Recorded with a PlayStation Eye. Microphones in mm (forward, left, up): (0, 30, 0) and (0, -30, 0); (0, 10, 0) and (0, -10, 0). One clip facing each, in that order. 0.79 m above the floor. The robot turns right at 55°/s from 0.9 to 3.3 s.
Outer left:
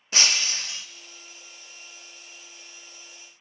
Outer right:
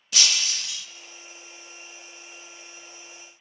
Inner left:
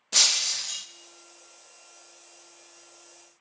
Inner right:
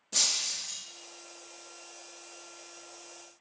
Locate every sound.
0.1 s breaking glass: 35° left (ahead or behind), 0.6 m